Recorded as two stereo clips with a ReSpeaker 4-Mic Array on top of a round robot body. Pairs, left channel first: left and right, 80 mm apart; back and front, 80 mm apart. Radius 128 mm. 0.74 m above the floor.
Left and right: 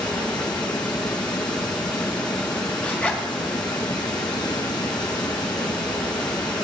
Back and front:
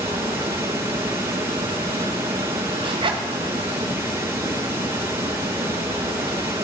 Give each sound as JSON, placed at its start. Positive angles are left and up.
{"t": 0.0, "sound": "running water", "azimuth_deg": 60, "distance_m": 3.0}
{"t": 2.8, "sound": "a zipper", "azimuth_deg": 15, "distance_m": 1.7}